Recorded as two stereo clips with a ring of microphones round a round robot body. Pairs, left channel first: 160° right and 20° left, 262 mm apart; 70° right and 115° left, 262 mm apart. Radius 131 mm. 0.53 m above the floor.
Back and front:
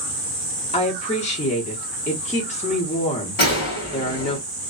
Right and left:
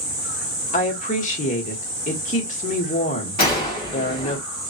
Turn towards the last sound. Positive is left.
turn(degrees=-120)